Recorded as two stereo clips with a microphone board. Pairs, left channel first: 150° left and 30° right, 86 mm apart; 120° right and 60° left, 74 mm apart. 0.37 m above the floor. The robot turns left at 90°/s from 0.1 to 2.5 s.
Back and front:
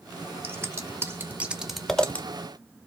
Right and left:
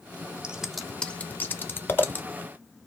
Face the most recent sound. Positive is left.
turn(degrees=175)